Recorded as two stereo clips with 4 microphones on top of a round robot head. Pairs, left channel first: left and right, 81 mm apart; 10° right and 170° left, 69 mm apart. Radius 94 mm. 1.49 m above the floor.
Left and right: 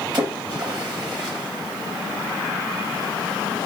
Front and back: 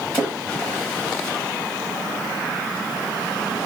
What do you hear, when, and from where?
0.1 s a splash: 75° right, 1.4 m